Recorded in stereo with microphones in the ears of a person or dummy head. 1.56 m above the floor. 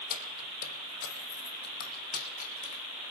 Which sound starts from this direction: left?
Keys jangling, at 0.1 s.